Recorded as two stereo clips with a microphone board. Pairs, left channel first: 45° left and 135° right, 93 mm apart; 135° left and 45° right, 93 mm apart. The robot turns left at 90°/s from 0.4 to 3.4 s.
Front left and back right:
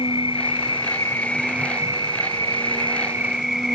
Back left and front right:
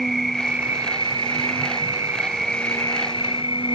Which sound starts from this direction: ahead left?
An insect, at 0.0 s.